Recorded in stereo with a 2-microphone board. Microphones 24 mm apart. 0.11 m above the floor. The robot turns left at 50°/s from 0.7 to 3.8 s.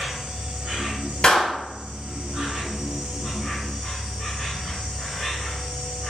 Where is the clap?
40° left (ahead or behind), 1.9 m; by 1.5 s 30° left (ahead or behind), 1.9 m.